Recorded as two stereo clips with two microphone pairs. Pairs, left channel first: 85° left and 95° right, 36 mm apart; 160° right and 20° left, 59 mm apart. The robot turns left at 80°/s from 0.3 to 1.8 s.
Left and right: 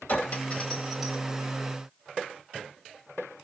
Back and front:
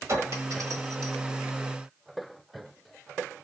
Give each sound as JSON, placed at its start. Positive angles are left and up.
{"t": 0.1, "sound": "a clink", "azimuth_deg": 55, "distance_m": 1.3}